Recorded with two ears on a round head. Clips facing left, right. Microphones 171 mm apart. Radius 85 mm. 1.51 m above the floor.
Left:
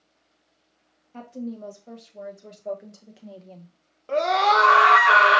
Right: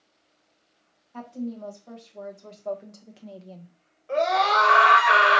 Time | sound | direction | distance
1.1 | a woman speaking | 25° left (ahead or behind) | 1.7 m
4.1 | a scream | 65° left (ahead or behind) | 1.4 m